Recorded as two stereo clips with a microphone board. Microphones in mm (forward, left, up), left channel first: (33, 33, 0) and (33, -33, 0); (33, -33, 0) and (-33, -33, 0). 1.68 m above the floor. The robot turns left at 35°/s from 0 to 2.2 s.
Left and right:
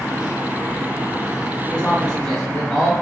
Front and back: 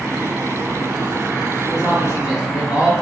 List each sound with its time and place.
1.7 s a man speaking: 40° left, 1.9 m; by 2.9 s 20° left, 1.9 m